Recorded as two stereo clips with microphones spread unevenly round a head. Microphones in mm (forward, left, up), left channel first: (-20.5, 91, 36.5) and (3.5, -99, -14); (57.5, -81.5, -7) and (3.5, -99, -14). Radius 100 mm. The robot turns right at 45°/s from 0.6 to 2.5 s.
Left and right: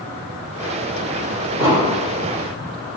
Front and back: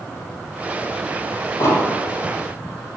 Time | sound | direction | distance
1.6 | an explosion | 15° right | 2.5 m